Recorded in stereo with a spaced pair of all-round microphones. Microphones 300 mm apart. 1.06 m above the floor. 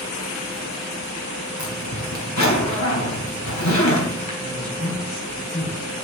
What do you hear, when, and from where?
1.6 s a zipper: 80° left, 3.5 m
4.4 s a woman speaking: 65° left (ahead or behind), 5 m